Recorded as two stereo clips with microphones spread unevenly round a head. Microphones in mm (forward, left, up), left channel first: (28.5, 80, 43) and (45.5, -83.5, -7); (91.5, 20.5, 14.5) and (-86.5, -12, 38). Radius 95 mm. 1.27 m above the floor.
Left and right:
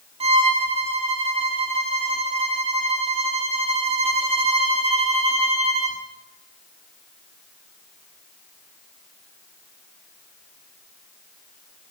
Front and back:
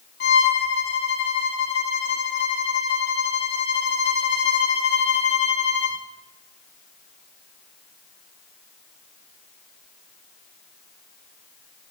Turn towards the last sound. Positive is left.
turn(degrees=-25)